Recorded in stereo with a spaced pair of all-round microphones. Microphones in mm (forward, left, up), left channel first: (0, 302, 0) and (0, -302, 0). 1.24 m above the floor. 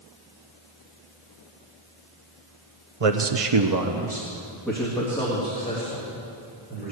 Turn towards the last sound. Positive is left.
turn(degrees=15)  # may be behind; listen again after turning